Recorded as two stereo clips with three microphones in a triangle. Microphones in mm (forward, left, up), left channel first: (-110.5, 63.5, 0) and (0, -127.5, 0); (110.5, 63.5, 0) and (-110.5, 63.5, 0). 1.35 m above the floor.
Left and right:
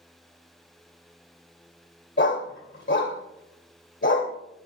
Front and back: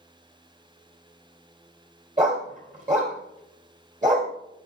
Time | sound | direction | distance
2.2 | a dog barking | 130° left | 1.8 m